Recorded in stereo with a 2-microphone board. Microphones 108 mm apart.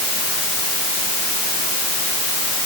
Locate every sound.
Only background noise.